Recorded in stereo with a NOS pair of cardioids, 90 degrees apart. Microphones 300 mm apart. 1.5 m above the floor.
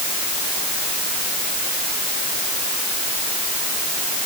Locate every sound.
Only background noise.